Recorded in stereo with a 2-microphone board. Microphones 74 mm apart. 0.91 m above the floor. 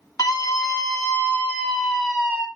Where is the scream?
55° left (ahead or behind), 1.9 m; by 2.5 s 20° right (ahead or behind), 1.5 m.